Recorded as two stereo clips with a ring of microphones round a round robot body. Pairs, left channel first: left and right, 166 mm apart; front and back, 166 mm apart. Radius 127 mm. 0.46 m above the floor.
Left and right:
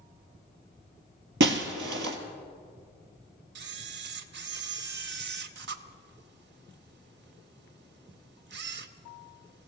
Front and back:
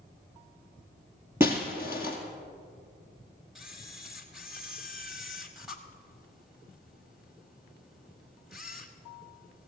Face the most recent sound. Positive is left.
turn(degrees=-90)